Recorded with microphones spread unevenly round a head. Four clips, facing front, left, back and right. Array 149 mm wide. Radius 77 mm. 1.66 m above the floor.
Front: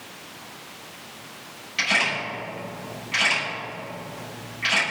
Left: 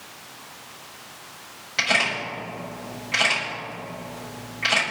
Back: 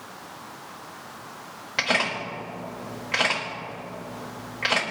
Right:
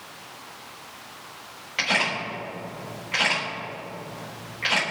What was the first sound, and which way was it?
A camera shutter, straight behind.